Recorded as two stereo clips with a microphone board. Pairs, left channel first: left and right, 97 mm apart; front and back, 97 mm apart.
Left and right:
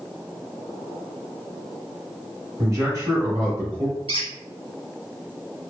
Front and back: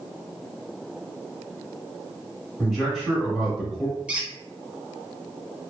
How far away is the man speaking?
About 1.2 m.